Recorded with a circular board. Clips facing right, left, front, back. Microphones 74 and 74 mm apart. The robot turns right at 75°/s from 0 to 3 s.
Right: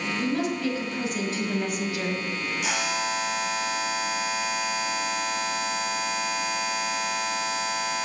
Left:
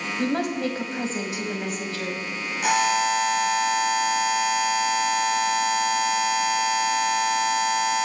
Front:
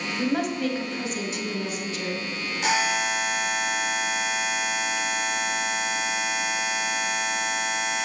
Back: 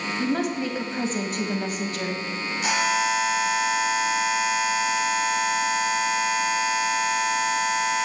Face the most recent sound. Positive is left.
turn(degrees=90)